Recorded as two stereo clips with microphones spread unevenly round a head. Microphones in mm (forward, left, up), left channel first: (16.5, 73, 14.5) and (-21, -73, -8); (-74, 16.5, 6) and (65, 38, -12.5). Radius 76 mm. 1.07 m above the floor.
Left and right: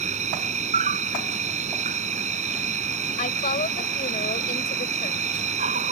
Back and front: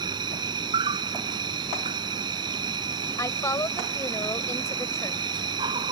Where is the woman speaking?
120° left.